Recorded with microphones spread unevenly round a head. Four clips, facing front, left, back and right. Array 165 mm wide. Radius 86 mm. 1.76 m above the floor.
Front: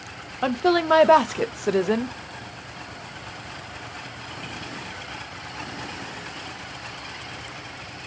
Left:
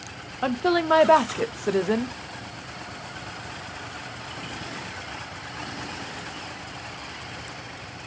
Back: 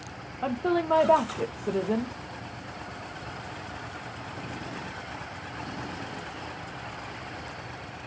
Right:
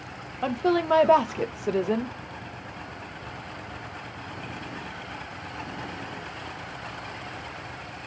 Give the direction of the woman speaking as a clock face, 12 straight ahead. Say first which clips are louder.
Left 1 dB, front 6 dB; 12 o'clock.